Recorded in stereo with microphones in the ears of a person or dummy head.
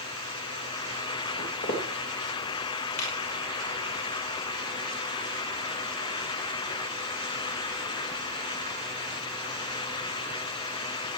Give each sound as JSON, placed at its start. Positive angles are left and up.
{"t": 1.4, "sound": "footsteps", "side_deg": 45, "distance_m": 3.0}
{"t": 3.0, "sound": "a finger snap", "side_deg": 50, "distance_m": 5.0}